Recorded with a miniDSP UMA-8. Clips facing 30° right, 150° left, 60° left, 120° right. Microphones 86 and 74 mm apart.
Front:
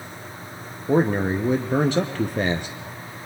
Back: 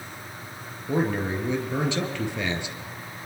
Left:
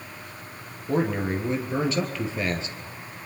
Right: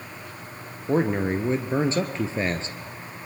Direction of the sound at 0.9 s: 65° right.